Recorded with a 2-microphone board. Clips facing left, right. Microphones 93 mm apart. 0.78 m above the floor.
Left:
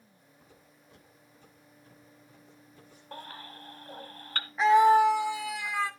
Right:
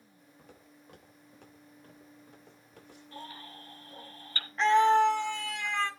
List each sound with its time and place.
0.4 s footsteps: 75° right (ahead or behind), 6 m; by 3.2 s 80° right, 7 m
3.1 s a baby crying: 60° left (ahead or behind), 2.5 m
4.6 s a scream: 10° left (ahead or behind), 1.1 m